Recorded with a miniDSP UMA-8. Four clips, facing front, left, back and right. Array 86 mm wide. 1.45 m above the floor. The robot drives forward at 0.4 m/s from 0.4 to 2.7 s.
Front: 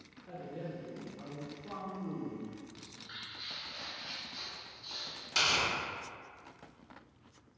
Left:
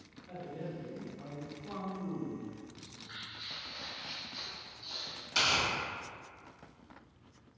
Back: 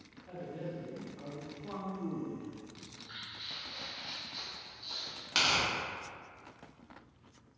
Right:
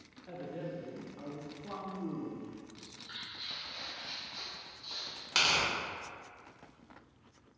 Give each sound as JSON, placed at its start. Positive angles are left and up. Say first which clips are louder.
{"t": 0.3, "sound": "a man speaking", "louder": "right 1 dB, back 1 dB", "azimuth_deg": -85, "distance_m": 0.6}
{"t": 2.8, "sound": "footsteps", "louder": "left 1 dB, even", "azimuth_deg": -90, "distance_m": 1.6}
{"t": 5.3, "sound": "tearing paper", "louder": "even, back 1 dB", "azimuth_deg": -135, "distance_m": 0.9}